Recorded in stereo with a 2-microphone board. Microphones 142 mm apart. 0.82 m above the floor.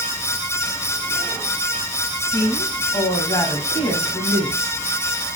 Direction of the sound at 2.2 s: 25° left (ahead or behind).